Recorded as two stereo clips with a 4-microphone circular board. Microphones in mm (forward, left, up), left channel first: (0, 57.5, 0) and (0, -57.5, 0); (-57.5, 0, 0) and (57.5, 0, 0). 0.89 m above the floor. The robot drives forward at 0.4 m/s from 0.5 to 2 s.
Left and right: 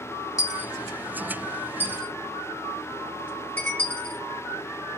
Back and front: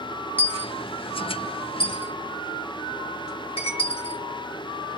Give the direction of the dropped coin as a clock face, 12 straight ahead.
8 o'clock.